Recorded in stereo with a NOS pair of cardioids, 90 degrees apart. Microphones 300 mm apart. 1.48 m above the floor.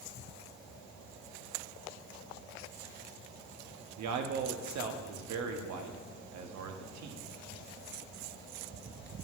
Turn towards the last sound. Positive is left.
turn(degrees=-70)